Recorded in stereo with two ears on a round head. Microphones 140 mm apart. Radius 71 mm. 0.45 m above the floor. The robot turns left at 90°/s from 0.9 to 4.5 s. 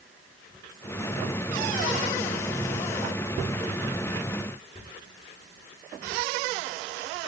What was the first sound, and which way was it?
Only background noise.